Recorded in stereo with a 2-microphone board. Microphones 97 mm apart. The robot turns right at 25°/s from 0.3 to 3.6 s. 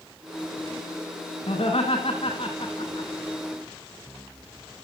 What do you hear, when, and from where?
1.5 s laughter: 70° left (ahead or behind), 4 m; by 3.1 s 50° left (ahead or behind), 4 m